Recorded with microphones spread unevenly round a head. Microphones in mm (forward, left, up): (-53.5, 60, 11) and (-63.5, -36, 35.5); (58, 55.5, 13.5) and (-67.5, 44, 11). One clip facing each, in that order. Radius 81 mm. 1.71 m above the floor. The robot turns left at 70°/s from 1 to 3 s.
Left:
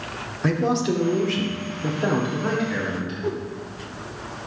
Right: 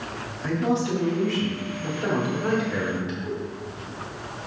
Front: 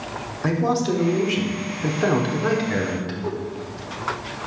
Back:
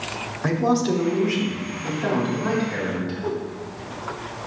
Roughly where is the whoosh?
Left.